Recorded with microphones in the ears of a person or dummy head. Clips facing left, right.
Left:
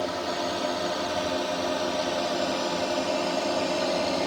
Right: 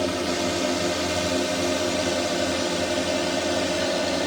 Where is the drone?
35° right (ahead or behind); by 4.3 s 20° right (ahead or behind).